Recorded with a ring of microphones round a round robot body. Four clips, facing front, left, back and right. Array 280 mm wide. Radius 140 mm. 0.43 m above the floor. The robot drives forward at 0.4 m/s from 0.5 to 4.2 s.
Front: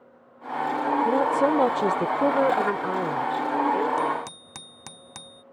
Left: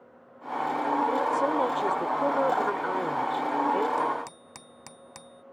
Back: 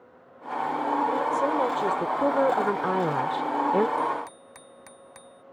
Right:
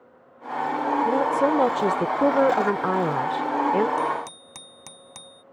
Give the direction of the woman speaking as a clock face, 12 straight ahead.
1 o'clock.